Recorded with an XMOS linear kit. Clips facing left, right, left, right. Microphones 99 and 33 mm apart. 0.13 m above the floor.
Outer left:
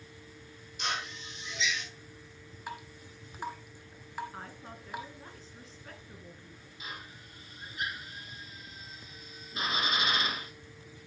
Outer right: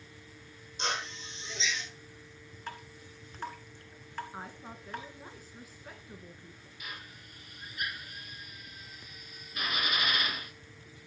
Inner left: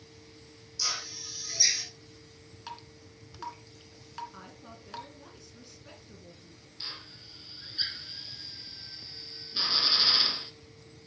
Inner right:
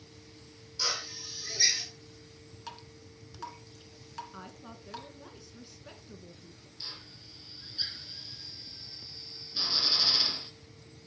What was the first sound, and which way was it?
A drill, 30° right (ahead or behind).